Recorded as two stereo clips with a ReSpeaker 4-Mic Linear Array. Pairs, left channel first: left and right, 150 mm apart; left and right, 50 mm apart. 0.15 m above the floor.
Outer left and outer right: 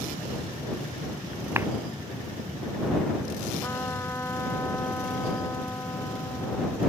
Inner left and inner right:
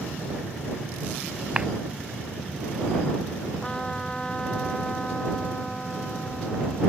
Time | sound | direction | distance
1.6 | a clap | 15° right (ahead or behind) | ?
3.6 | a trumpet | 15° left (ahead or behind) | ?